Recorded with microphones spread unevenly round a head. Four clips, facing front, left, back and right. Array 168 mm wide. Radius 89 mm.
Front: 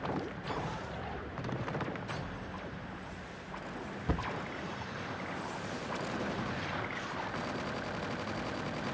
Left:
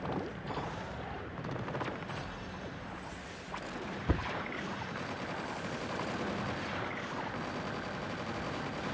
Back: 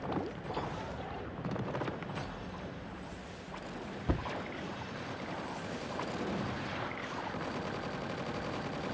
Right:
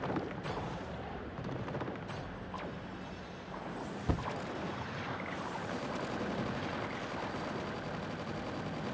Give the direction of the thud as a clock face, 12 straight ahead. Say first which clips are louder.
Left 1 dB, even; 4 o'clock.